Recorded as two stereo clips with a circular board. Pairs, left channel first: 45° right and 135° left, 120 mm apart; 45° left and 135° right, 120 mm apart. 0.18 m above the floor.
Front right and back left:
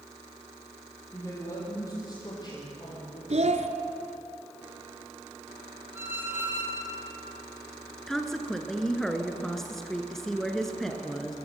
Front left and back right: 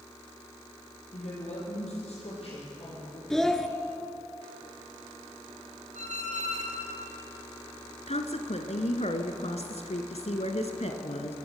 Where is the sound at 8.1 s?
40° left, 2 m.